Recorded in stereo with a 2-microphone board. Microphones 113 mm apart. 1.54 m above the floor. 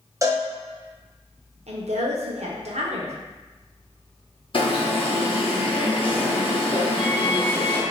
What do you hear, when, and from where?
0.2 s a cowbell: 30° right (ahead or behind), 0.6 m
1.7 s a woman speaking: 75° right (ahead or behind), 0.6 m
4.5 s an alarm: 50° left (ahead or behind), 0.6 m